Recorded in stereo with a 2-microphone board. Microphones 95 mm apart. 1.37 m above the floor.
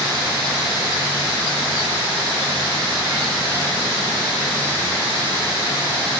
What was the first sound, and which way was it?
Only background noise.